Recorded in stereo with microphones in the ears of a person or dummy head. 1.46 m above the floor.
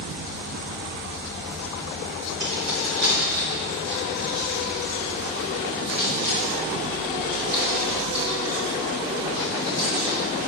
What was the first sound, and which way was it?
Keys jangling, 75° right (ahead or behind).